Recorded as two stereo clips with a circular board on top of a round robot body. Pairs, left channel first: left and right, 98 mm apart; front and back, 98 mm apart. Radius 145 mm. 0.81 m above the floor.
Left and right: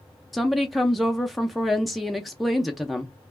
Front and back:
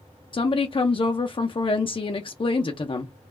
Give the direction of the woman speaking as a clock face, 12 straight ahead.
12 o'clock.